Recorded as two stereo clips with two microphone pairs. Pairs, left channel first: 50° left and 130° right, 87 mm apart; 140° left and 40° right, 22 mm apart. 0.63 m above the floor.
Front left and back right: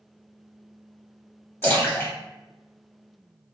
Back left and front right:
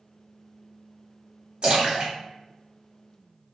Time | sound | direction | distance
1.6 | a splash | 5° right | 1.0 m